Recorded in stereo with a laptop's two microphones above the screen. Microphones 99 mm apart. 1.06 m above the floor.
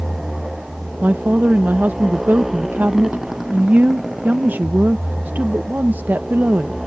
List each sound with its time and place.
0.0 s a motorcycle: 5° right (ahead or behind)
1.0 s a woman speaking: 20° right (ahead or behind)